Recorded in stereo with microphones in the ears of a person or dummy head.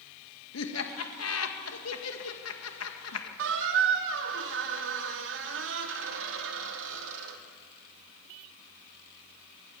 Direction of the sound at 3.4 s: 70° right (ahead or behind).